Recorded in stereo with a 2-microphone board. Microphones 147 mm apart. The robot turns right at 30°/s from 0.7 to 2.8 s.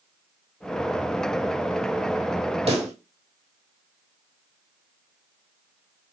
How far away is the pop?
About 1.1 m.